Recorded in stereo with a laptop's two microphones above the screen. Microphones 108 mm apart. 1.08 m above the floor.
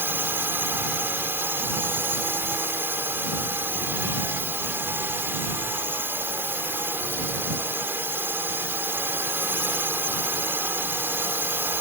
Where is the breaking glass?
I don't hear breaking glass.